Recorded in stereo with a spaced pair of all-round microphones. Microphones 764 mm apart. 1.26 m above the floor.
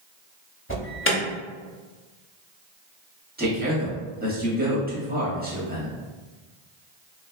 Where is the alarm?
15° left (ahead or behind), 0.7 m.